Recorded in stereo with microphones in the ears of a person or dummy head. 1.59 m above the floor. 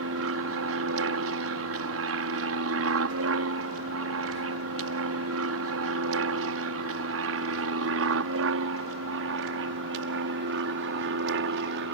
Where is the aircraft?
65° right (ahead or behind).